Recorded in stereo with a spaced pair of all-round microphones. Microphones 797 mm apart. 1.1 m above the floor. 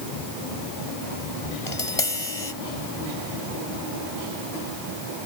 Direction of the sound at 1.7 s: 40° left (ahead or behind).